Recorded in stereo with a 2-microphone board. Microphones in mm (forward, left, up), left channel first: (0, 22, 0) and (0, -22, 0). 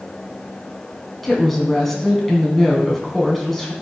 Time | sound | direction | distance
1.2 | a woman speaking | 5° left (ahead or behind) | 2.5 m